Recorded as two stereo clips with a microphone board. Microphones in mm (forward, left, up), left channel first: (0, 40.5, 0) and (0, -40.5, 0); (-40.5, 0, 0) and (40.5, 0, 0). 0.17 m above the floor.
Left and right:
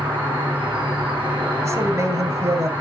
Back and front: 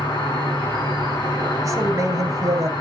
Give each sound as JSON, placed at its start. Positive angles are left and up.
{"t": 0.0, "sound": "an insect", "azimuth_deg": -160, "distance_m": 4.0}
{"t": 1.6, "sound": "a man speaking", "azimuth_deg": -45, "distance_m": 2.0}